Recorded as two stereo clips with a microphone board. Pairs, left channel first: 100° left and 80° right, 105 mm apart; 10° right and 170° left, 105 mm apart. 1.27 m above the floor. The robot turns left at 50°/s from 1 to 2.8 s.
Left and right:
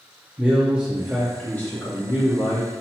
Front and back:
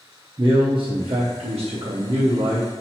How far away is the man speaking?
About 0.7 m.